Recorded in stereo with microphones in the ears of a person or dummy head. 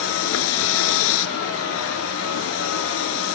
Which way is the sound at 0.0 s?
80° left.